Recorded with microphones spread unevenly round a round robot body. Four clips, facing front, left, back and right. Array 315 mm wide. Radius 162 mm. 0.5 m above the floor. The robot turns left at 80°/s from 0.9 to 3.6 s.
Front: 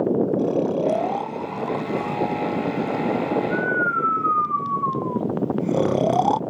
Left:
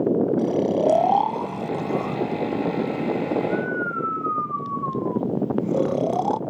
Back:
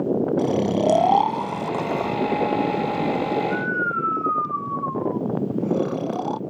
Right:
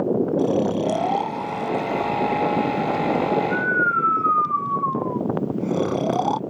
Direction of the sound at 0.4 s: 165° right.